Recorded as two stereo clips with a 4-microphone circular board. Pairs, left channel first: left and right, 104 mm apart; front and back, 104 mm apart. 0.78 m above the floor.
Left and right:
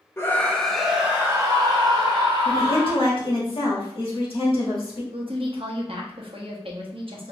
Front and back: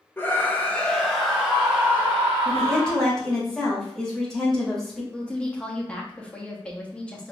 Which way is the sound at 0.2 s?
50° left.